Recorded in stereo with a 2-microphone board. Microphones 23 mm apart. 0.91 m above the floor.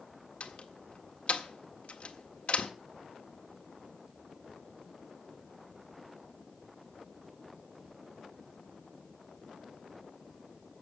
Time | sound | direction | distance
0.4 | a door slam | 60° left (ahead or behind) | 1.5 m